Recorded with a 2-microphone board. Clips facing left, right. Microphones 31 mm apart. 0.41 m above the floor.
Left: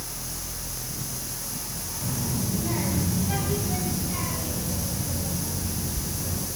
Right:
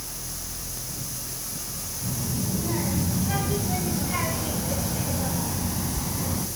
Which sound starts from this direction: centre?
A child speaking, at 2.0 s.